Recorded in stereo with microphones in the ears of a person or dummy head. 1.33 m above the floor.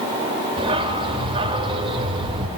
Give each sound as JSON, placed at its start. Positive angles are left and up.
{"t": 0.6, "sound": "a dog barking", "side_deg": -25, "distance_m": 1.6}